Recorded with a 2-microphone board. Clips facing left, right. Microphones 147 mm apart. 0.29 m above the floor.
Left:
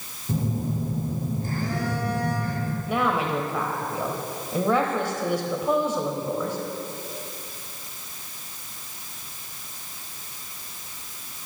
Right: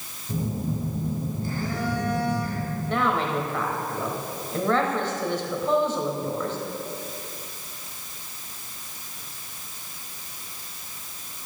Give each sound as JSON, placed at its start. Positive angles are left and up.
{"t": 0.3, "sound": "a phone buzzing", "side_deg": 45, "distance_m": 2.5}
{"t": 2.9, "sound": "a woman speaking", "side_deg": 10, "distance_m": 1.1}